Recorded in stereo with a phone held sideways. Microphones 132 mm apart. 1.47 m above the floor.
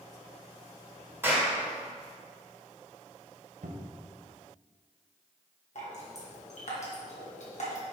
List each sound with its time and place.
1.2 s a clap: 15° right (ahead or behind), 2.5 m
3.6 s a cupboard door: 80° right, 0.8 m
5.8 s dripping: 60° left (ahead or behind), 1.8 m